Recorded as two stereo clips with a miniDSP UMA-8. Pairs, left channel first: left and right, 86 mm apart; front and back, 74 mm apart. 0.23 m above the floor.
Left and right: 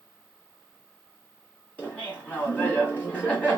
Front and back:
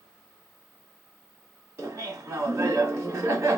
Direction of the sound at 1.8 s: 155° left.